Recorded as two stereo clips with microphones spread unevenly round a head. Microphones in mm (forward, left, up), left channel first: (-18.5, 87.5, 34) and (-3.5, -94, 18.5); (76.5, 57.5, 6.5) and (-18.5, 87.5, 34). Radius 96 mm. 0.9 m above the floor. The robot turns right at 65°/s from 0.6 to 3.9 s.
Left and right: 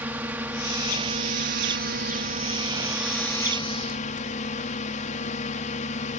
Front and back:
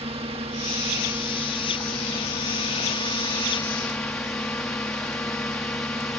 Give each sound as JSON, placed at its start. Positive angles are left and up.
{"t": 0.0, "sound": "a drone", "azimuth_deg": -160}